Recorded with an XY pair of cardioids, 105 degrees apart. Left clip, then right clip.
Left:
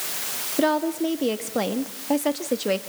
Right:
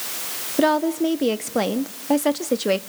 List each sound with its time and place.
0.6 s a woman speaking: 20° right, 1.6 m